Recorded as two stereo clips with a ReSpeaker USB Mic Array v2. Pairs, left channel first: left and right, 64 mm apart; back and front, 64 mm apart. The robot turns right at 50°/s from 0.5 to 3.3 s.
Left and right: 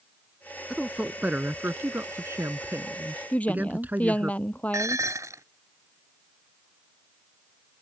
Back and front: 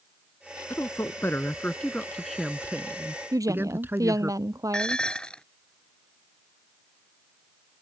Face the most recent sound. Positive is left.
turn(degrees=-105)